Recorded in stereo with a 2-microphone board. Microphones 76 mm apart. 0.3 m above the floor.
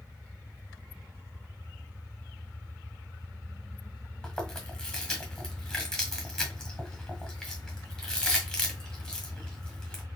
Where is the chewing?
10° left (ahead or behind), 1.6 m.